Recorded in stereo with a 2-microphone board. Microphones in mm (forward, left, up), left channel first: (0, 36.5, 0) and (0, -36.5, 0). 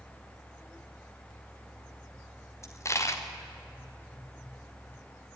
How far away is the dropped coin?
About 3 m.